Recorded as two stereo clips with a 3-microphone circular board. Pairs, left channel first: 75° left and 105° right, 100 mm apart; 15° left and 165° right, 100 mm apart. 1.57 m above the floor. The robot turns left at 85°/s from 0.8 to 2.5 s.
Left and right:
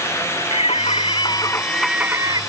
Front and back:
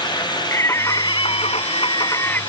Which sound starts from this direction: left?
Singing, at 0.5 s.